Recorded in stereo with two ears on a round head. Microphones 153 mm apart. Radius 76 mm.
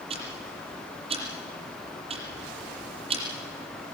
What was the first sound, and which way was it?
Ticking, 35° right (ahead or behind).